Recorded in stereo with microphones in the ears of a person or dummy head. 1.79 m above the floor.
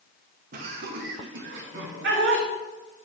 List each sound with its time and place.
0.5 s laughter: 55° right (ahead or behind), 2.0 m; by 2.5 s 80° right, 3.5 m